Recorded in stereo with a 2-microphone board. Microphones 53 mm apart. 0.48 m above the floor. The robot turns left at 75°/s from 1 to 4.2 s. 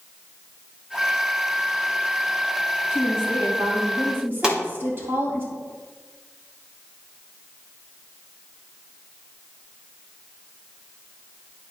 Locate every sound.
2.9 s a woman speaking: 35° right, 2.5 m; by 5.4 s 135° right, 2.5 m
4.4 s a pop: 15° right (ahead or behind), 2 m